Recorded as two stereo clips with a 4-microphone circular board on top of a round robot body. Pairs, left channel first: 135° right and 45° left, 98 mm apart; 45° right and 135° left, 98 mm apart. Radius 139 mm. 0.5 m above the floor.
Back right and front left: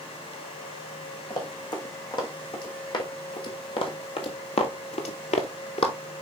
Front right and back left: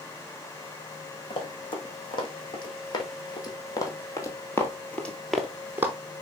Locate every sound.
1.3 s running footsteps: 85° right, 2.5 m; by 6.0 s 160° right, 0.8 m